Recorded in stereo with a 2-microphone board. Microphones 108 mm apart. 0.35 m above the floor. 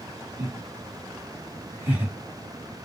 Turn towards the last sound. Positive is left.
turn(degrees=-15)  # may be behind; listen again after turning